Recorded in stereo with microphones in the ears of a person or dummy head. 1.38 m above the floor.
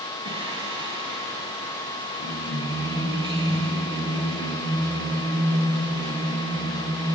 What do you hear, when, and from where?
0.2 s singing: 30° right (ahead or behind), 3.5 m